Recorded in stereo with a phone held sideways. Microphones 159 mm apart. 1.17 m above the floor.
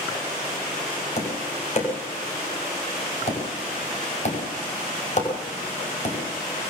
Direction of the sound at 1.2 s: 45° left (ahead or behind).